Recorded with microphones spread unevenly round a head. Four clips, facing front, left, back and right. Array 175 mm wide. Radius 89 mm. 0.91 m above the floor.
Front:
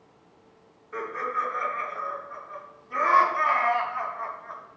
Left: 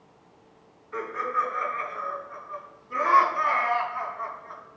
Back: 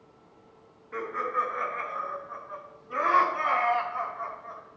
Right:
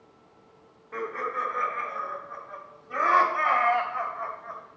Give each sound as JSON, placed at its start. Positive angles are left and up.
{"t": 0.9, "sound": "laughter", "azimuth_deg": -120, "distance_m": 4.5}